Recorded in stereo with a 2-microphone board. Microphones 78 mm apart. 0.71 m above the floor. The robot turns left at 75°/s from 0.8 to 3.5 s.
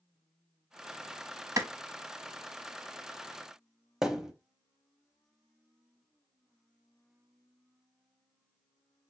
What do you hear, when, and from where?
1.6 s a clap: 40° right (ahead or behind), 0.8 m; by 1.7 s 35° right (ahead or behind), 0.8 m
4.0 s a thud: 5° right (ahead or behind), 0.5 m